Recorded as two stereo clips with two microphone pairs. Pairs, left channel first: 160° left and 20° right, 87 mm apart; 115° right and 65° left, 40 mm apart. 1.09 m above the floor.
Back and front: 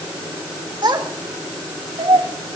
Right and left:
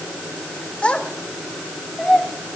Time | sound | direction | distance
0.8 | a child speaking | 55° right | 2 m